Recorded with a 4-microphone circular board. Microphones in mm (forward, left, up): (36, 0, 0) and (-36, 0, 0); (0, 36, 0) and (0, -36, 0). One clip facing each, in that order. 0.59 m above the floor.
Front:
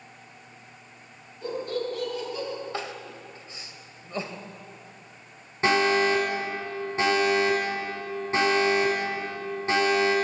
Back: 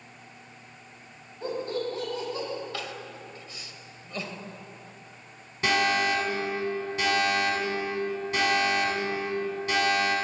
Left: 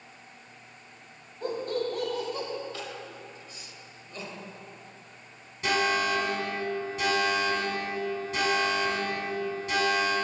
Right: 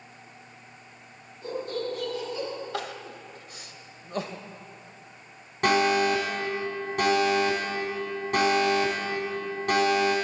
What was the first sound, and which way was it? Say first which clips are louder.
Laughter: front 1 dB, left 1 dB; 120° left.